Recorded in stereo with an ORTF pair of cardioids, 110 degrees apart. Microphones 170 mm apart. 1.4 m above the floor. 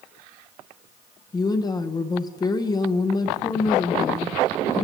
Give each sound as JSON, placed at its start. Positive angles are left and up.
{"t": 1.3, "sound": "a woman speaking", "azimuth_deg": 25, "distance_m": 0.7}